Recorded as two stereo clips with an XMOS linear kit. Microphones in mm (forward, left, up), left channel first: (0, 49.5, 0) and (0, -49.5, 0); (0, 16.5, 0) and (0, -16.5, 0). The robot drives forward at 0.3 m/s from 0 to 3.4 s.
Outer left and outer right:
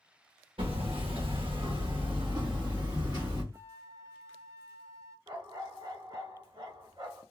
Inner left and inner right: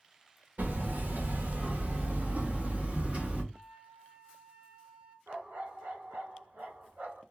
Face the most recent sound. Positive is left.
turn(degrees=-50)  # may be behind; listen again after turning